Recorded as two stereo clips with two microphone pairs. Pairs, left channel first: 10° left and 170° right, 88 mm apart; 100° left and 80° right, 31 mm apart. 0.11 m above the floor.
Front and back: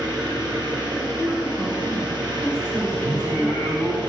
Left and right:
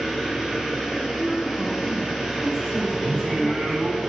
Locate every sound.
0.0 s an engine running: 155° right, 2 m
1.0 s a woman speaking: 140° left, 1.7 m
3.0 s singing: 120° right, 2 m